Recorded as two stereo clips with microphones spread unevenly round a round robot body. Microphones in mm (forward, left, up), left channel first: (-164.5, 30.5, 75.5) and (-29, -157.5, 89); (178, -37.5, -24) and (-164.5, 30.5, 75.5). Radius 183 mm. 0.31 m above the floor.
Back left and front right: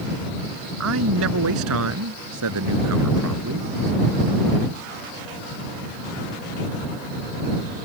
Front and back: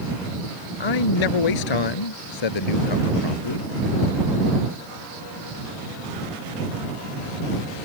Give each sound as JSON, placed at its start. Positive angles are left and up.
{"t": 0.8, "sound": "a man speaking", "azimuth_deg": -20}